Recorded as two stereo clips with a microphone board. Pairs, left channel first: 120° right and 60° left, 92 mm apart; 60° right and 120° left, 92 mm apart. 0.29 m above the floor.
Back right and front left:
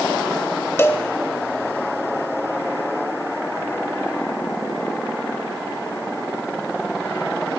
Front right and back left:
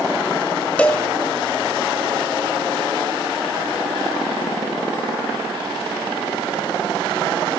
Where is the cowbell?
115° right, 0.7 m.